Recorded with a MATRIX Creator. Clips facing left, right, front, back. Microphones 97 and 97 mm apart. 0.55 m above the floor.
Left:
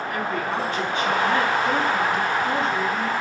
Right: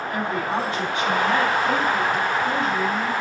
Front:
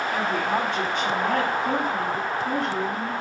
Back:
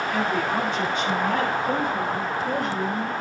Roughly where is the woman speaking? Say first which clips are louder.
Right 2 dB, back 1 dB; ahead right.